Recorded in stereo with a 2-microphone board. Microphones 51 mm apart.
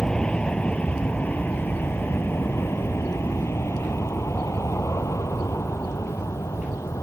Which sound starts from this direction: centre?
An aircraft, at 0.0 s.